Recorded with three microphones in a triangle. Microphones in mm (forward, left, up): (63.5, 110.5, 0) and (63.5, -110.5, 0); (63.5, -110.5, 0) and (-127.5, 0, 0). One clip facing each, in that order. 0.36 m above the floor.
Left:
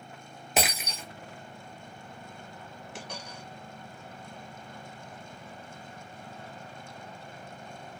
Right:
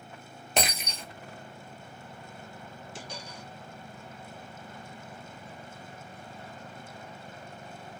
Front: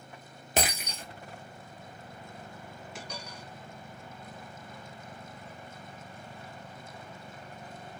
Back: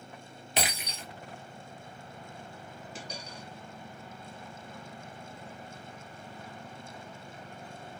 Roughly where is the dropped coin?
Left.